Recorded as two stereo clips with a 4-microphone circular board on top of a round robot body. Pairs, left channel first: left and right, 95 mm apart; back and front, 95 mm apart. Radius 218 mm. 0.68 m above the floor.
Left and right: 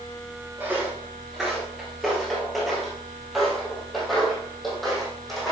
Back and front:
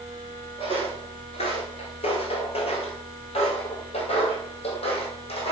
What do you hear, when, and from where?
0.6 s footsteps: 165° right, 0.6 m; by 5.5 s 175° left, 3 m